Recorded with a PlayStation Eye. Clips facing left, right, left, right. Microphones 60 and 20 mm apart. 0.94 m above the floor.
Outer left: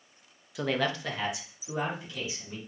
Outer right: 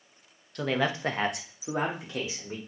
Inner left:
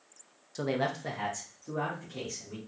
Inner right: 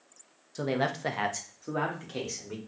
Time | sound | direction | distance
0.6 | a man speaking | 10° left (ahead or behind) | 0.7 m